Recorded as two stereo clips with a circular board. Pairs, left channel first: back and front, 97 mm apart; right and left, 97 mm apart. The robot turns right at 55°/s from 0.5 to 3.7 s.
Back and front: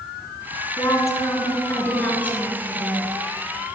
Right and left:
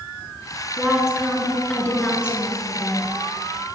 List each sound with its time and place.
0.8 s a woman speaking: 155° left, 1.2 m; by 3.1 s 75° right, 1.2 m